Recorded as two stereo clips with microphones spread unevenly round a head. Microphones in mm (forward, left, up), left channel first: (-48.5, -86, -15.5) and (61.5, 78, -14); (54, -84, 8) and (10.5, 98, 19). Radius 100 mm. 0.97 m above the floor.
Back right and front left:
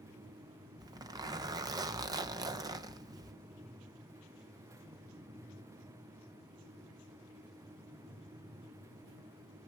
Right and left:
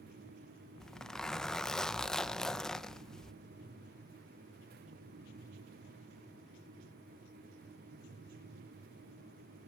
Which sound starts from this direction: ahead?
A zipper, at 0.8 s.